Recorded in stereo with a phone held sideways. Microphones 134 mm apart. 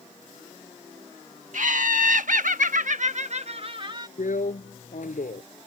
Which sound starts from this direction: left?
A drill, at 4.2 s.